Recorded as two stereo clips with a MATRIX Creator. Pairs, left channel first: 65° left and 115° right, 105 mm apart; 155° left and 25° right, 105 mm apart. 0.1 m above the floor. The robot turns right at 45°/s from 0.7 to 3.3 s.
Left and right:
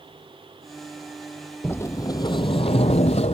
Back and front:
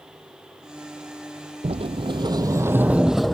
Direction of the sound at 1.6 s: 5° right.